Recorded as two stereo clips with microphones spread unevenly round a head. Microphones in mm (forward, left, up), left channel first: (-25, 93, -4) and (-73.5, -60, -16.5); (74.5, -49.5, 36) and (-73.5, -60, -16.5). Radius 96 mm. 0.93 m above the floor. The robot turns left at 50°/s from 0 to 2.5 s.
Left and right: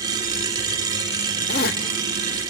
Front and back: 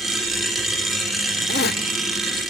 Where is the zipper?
35° left, 0.7 m; by 2.5 s 15° right, 0.7 m.